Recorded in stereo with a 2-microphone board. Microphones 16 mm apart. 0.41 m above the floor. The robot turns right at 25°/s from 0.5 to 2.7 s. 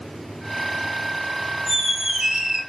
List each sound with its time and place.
1.7 s a squeak: 60° right (ahead or behind), 1.6 m